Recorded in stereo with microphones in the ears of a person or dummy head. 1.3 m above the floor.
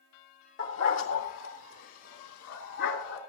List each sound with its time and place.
0.6 s a dog barking: 60° left (ahead or behind), 1.8 m; by 3.2 s 70° left (ahead or behind), 4.5 m